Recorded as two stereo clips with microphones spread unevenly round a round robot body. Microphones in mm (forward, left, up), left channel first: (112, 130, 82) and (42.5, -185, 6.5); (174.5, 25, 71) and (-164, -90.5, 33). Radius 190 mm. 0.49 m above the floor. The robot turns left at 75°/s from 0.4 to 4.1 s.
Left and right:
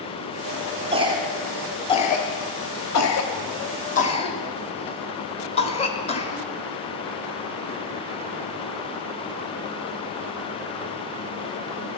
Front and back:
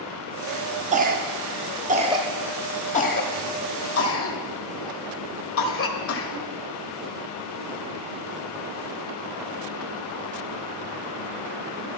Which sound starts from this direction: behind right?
A cough, at 0.9 s.